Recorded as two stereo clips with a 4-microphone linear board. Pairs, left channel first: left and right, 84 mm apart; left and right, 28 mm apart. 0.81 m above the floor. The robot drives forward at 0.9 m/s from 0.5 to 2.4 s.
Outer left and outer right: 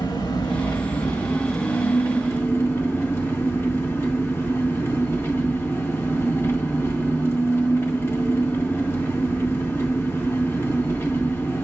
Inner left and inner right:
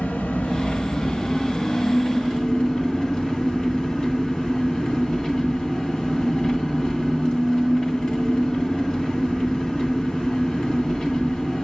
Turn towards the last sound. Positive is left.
turn(degrees=30)  # may be behind; listen again after turning